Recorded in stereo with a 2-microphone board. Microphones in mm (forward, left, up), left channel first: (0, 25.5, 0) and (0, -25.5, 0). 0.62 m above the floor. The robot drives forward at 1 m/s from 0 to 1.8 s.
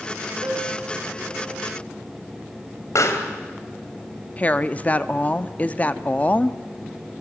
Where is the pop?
75° left (ahead or behind), 2.5 m.